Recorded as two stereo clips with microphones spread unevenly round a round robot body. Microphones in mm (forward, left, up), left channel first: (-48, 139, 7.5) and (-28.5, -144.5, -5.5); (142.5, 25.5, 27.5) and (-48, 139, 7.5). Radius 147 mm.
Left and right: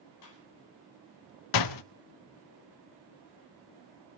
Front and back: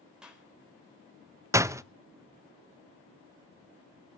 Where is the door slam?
70° left, 0.6 m.